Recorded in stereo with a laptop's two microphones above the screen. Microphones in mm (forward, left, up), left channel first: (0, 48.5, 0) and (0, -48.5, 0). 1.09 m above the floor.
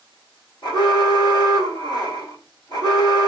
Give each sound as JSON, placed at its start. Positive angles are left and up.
{"t": 0.6, "sound": "an alarm", "side_deg": 55, "distance_m": 2.0}